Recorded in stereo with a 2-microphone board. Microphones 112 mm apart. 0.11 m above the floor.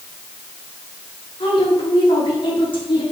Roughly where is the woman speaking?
Left.